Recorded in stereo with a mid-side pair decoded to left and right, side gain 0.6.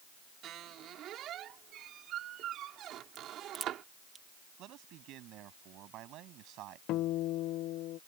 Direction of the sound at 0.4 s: 55° right.